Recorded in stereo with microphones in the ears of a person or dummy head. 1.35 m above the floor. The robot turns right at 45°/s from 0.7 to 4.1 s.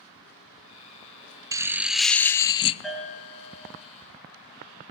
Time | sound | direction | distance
1.5 | laughter | 20° right | 0.5 m
2.8 | a bell | straight behind | 4.5 m